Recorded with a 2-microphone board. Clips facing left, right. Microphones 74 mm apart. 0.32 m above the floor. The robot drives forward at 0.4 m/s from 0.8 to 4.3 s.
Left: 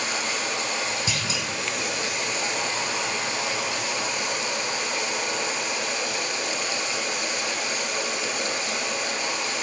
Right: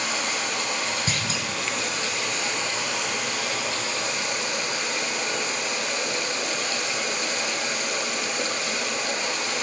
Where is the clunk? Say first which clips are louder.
Right 1 dB; 45° right (ahead or behind), 2 m; by 1.5 s 40° right (ahead or behind), 2 m.